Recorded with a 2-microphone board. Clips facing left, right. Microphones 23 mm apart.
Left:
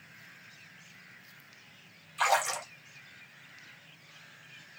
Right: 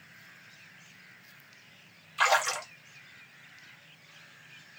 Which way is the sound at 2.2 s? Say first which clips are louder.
Right 2 dB; 35° right (ahead or behind).